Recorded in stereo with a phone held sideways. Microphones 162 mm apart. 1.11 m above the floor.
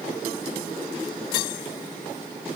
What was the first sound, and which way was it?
Only background noise.